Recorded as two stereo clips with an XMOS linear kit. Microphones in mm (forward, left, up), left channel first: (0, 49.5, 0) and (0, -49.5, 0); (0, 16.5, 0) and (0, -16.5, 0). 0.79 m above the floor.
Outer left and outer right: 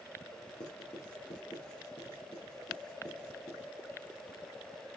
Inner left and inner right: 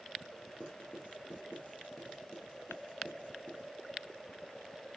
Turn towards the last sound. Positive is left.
turn(degrees=40)  # may be behind; listen again after turning